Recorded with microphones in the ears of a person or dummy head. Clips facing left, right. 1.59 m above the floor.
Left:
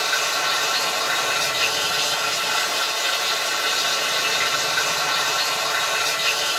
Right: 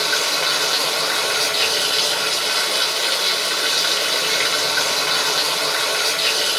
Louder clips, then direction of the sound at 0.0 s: Right 3 dB; 55° right (ahead or behind).